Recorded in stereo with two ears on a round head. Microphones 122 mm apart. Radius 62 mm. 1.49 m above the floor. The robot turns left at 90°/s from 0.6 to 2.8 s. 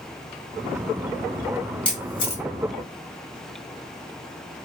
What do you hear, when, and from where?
1.9 s a camera shutter: 10° left (ahead or behind), 1.3 m; by 2.4 s 55° left (ahead or behind), 1.3 m